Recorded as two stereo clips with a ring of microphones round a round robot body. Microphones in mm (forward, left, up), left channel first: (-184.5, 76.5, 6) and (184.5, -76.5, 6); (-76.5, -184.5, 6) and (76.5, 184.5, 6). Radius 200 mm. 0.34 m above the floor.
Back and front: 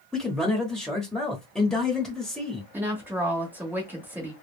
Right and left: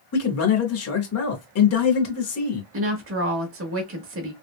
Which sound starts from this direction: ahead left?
A woman speaking, at 2.7 s.